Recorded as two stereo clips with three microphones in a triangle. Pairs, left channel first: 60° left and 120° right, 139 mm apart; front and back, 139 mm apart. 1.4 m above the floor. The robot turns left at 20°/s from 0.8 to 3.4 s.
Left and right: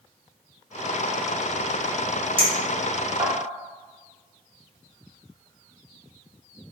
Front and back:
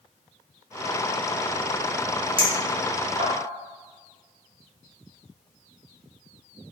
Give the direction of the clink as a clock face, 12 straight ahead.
5 o'clock.